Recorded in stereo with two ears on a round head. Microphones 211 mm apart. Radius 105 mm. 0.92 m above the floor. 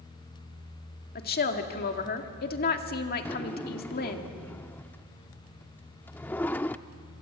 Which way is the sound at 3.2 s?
10° left (ahead or behind).